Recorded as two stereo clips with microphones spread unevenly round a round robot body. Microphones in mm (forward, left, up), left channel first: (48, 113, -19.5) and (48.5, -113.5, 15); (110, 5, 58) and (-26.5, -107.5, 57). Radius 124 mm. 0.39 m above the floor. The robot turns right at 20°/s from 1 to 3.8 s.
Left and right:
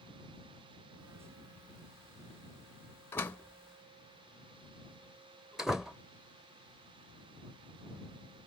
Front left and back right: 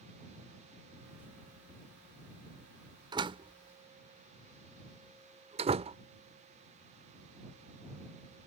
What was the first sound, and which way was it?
A door slam, 160° left.